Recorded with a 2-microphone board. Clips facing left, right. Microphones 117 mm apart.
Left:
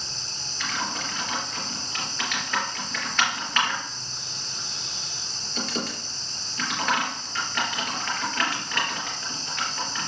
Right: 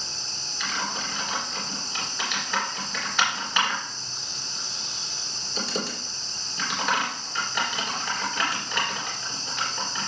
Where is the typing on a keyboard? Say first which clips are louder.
Even; 10° right (ahead or behind), 3.5 m.